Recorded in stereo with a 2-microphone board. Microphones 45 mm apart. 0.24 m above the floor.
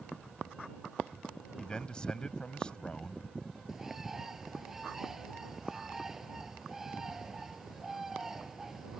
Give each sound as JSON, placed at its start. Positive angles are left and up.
{"t": 1.6, "sound": "a man speaking", "side_deg": 20}
{"t": 3.7, "sound": "a bird", "side_deg": -10}